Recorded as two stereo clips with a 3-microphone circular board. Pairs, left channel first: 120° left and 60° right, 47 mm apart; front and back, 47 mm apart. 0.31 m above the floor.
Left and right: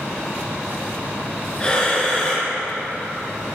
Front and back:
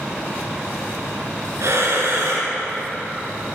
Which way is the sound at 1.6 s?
165° right.